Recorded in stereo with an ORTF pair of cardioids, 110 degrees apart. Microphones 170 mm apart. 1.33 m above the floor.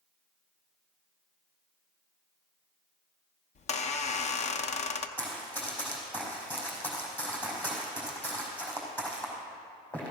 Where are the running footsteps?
10° left, 4.5 m.